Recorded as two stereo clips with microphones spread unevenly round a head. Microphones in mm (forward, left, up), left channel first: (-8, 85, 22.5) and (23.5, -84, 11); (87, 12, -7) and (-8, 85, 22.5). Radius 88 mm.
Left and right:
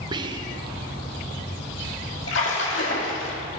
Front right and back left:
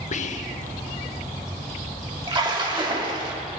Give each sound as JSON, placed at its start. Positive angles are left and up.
{"t": 0.1, "sound": "whispering", "azimuth_deg": -15, "distance_m": 0.9}
{"t": 2.3, "sound": "a splash", "azimuth_deg": 100, "distance_m": 2.0}